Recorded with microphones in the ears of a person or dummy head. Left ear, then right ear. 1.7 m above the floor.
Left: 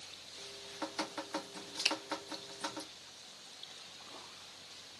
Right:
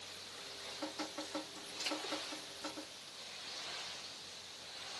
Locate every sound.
0.4 s dripping: 60° left (ahead or behind), 0.8 m
1.9 s a finger snap: 55° left (ahead or behind), 0.7 m